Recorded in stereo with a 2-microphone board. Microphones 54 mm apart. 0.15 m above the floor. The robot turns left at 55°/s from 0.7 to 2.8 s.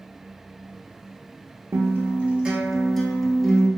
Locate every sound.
1.7 s a guitar: 120° right, 0.7 m; by 3.7 s straight behind, 0.7 m